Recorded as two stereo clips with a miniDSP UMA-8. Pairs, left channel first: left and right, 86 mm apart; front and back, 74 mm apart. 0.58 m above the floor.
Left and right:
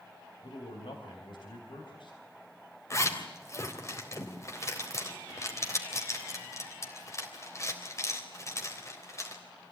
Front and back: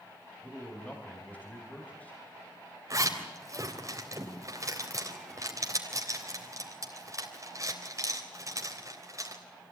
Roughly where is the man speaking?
Left.